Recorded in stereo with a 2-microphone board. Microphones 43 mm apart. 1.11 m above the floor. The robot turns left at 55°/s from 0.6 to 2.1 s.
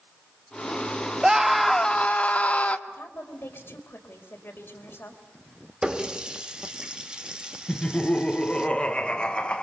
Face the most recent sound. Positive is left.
turn(degrees=25)  # may be behind; listen again after turning